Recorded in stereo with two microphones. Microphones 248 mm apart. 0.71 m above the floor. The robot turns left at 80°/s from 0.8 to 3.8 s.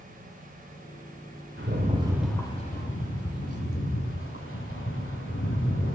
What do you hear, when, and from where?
1.6 s a rattle: 125° right, 2.5 m; by 6.0 s 60° left, 2.5 m